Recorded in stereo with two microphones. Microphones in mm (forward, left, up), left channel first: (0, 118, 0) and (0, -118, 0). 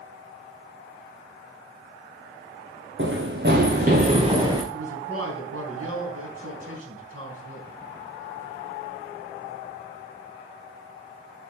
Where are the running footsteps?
55° right (ahead or behind), 2.5 m; by 4.6 s 15° right (ahead or behind), 2 m.